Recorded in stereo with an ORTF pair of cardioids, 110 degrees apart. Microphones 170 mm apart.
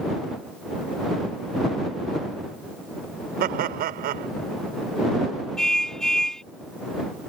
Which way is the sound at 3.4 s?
65° right.